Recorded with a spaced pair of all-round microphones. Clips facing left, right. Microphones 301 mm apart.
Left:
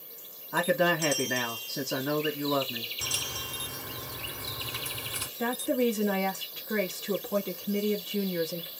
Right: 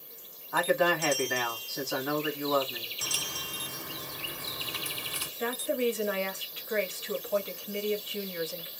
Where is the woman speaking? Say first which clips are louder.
Left 3 dB; 55° left (ahead or behind), 0.9 m.